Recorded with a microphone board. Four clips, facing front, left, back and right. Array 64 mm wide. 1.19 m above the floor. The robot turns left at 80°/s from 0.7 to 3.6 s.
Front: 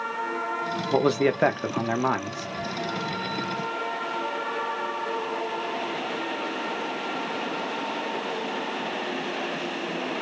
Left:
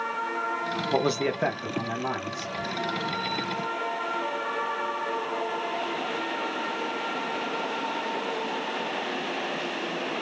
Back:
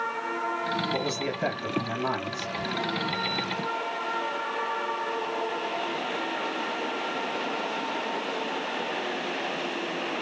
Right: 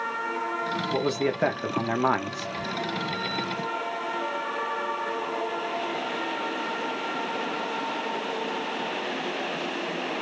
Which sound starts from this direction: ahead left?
A man speaking, at 0.9 s.